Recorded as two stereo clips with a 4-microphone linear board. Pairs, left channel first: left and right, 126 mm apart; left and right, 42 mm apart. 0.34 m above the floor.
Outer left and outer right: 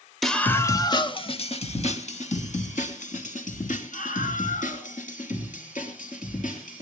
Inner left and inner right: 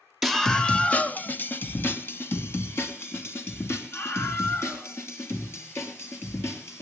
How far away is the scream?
About 1.2 m.